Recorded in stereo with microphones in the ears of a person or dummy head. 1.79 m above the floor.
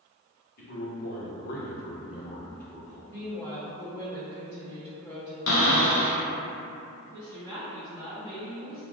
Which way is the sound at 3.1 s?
10° left (ahead or behind).